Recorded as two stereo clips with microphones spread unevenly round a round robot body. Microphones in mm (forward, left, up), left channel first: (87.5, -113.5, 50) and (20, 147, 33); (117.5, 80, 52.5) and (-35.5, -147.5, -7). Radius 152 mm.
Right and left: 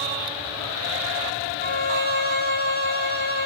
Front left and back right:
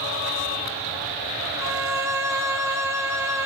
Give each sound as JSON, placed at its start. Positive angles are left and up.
{"t": 1.6, "sound": "a violin", "azimuth_deg": -80, "distance_m": 0.7}